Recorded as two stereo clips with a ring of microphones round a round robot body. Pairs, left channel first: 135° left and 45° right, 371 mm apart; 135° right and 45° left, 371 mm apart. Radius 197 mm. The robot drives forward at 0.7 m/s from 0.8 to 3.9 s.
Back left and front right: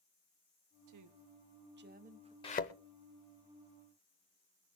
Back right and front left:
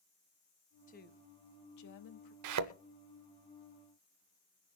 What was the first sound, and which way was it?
A woman speaking, 70° right.